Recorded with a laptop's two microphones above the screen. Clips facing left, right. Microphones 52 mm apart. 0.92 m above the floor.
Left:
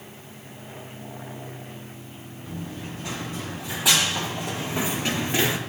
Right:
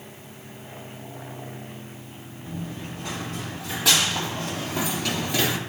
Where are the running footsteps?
5° left (ahead or behind), 3.5 m; by 5.6 s 25° left (ahead or behind), 1.1 m.